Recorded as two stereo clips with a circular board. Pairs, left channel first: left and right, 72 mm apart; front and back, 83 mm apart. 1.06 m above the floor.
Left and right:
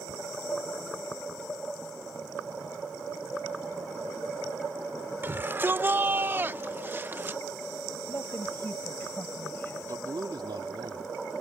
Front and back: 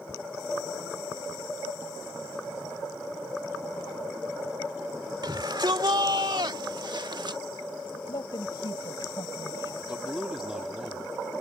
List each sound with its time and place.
5.2 s a shout: 150° right
8.1 s a woman speaking: 30° left
9.9 s a man speaking: 100° right